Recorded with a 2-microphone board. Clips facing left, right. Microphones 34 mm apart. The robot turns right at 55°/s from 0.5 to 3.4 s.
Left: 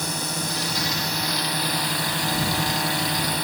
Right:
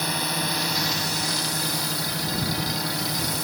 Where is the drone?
25° right; by 3.5 s 135° left.